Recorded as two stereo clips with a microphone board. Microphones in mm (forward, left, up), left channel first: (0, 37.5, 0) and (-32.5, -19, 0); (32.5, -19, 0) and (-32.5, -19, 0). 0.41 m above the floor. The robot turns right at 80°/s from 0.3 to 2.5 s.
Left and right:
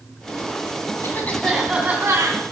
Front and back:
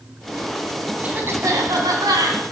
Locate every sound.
1.0 s a cough: 110° left, 3 m; by 2.4 s 140° right, 3 m